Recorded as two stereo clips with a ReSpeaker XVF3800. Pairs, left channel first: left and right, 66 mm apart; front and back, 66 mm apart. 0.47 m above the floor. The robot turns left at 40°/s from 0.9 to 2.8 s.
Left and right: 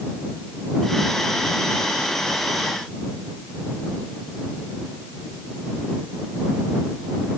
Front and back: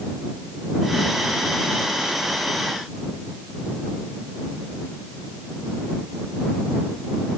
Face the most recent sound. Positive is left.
No sound to turn to.